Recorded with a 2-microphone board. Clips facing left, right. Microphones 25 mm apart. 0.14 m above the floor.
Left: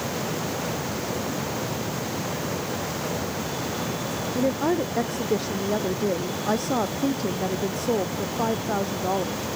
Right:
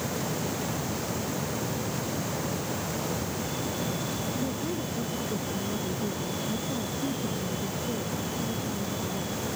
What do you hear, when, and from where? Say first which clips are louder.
4.3 s a woman speaking: left 8 dB; 80° left